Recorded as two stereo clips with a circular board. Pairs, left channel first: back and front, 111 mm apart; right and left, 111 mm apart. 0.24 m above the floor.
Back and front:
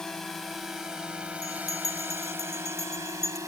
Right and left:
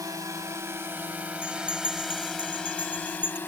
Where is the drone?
100° left; by 3.5 s 35° right.